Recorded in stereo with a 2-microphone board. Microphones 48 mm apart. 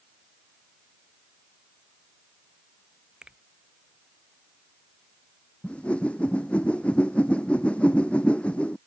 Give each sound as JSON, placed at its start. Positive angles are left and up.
{"t": 3.2, "sound": "a finger snap", "side_deg": -20}
{"t": 5.6, "sound": "a whoosh", "side_deg": 25}